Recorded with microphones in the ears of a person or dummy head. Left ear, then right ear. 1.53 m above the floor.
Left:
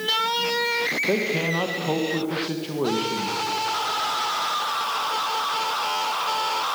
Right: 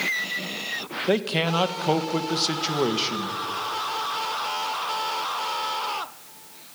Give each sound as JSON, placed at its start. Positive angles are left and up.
{"t": 1.1, "sound": "a man speaking", "side_deg": -55, "distance_m": 1.5}